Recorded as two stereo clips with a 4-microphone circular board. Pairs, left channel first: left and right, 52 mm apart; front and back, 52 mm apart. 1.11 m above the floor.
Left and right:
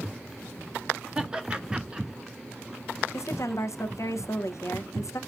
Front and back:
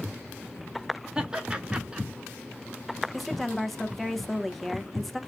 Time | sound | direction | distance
1.1 | laughter | 135° right | 0.8 m
3.1 | a woman speaking | 85° left | 0.5 m